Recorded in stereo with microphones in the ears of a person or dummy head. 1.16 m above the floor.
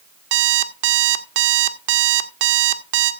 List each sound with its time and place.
0.3 s an alarm clock: 65° right (ahead or behind), 1.7 m